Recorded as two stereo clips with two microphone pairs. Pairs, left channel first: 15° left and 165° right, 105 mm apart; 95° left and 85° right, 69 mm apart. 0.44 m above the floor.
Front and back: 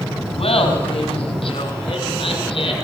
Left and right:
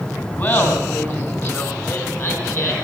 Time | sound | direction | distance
0.4 | laughter | 40° left | 4 m